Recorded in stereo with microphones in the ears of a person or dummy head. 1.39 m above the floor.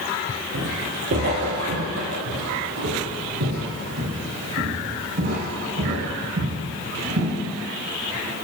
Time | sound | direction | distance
0.5 | footsteps | 45° right (ahead or behind) | 1.9 m